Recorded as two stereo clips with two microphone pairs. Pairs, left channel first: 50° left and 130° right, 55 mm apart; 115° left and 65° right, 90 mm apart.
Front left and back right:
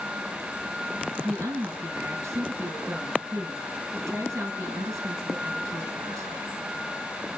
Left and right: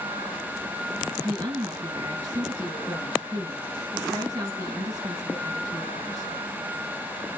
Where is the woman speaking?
110° right, 4.5 m.